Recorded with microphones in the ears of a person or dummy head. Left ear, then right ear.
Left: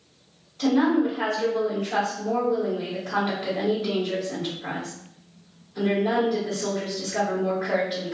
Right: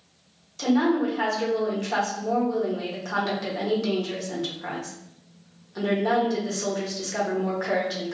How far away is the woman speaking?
About 1.2 m.